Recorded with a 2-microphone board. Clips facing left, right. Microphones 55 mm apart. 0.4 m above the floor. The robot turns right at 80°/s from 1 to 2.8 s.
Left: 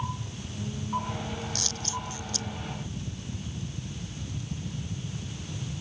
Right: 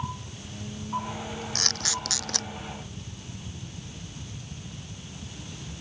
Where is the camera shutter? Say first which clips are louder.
Right 2 dB; 50° right (ahead or behind); by 2.5 s 55° right (ahead or behind).